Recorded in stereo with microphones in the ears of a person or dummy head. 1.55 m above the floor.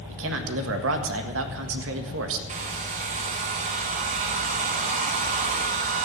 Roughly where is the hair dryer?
Right.